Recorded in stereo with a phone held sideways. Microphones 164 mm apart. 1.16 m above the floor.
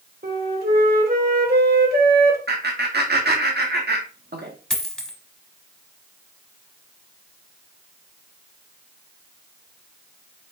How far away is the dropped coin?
About 1.1 m.